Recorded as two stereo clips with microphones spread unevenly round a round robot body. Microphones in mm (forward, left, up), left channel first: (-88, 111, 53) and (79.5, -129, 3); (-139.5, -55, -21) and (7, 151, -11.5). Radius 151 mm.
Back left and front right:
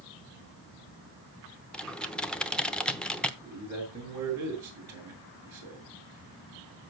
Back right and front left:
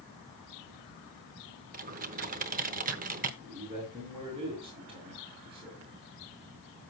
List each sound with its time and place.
1.7 s typing on a keyboard: 25° left, 0.8 m
3.4 s a man speaking: 20° right, 7 m